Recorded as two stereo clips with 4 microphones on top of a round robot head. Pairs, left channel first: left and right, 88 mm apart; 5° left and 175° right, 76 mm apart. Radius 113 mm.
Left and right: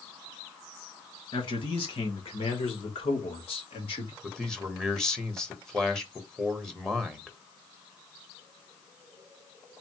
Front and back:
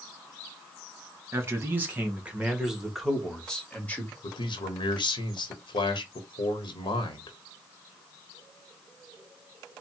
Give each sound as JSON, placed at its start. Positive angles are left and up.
{"t": 1.3, "sound": "a man speaking", "azimuth_deg": 125, "distance_m": 2.0}
{"t": 4.2, "sound": "a man speaking", "azimuth_deg": 5, "distance_m": 1.4}